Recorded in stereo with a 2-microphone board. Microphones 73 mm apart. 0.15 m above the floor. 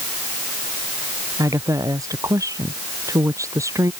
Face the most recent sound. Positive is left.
turn(degrees=-45)  # may be behind; listen again after turning